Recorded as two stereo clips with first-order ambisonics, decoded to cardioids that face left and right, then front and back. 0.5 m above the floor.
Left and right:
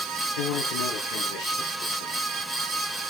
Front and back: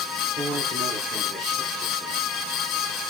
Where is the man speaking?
85° left, 6.5 m.